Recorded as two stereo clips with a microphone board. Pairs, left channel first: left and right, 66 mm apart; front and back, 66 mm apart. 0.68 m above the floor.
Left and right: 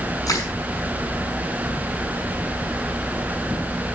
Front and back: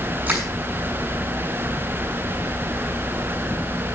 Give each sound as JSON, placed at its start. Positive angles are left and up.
{"t": 0.3, "sound": "crushing", "azimuth_deg": 115, "distance_m": 6.0}